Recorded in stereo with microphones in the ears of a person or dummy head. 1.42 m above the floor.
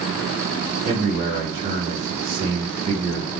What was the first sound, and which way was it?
A man speaking, 30° right (ahead or behind).